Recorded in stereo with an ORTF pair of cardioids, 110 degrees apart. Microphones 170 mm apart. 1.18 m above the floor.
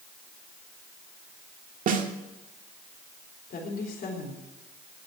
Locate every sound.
1.9 s a snare drum: 50° right, 1.8 m
3.5 s a woman speaking: 50° left, 4 m